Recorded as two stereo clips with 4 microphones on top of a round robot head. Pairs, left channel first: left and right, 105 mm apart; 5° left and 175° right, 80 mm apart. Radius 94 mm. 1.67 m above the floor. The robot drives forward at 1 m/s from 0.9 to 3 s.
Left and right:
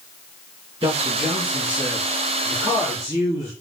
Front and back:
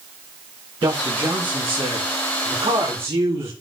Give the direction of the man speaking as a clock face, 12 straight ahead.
5 o'clock.